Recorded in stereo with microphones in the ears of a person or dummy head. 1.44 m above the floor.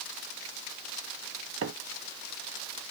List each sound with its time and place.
1.6 s a microwave: 70° right (ahead or behind), 0.7 m